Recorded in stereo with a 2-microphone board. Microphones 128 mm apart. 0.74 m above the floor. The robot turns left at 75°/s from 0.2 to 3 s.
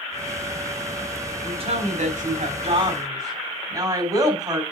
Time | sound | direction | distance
1.4 | a woman speaking | 35° right | 4 m